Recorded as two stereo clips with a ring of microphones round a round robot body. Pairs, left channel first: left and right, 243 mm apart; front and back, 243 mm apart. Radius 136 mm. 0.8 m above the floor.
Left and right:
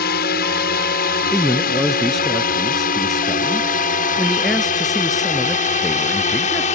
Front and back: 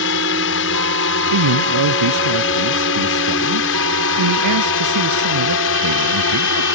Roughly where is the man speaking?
Behind.